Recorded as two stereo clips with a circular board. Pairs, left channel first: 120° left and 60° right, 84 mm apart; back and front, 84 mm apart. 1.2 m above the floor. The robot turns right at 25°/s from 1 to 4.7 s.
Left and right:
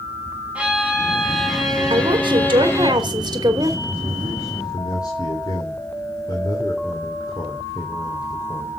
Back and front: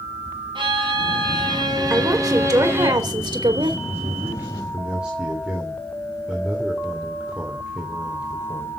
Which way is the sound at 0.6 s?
15° left.